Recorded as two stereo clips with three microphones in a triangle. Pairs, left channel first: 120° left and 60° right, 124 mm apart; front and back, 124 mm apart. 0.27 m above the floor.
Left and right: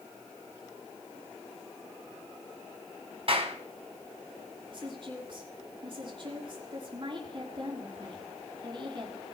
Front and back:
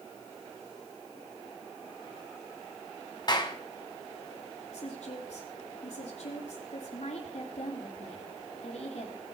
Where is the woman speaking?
15° right, 4.5 m.